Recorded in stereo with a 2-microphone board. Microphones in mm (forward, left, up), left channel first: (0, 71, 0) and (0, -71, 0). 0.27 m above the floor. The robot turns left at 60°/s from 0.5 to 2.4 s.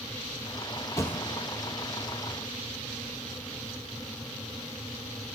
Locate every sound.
1.0 s a thud: 20° left (ahead or behind), 2 m; by 1.5 s 10° right (ahead or behind), 2 m